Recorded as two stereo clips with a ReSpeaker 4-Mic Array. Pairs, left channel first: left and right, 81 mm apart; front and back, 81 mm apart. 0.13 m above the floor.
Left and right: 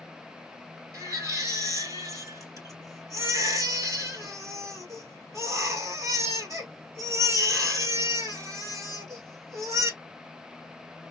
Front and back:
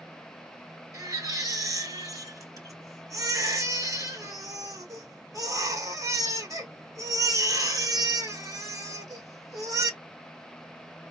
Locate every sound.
0.9 s a baby crying: 140° right, 1.5 m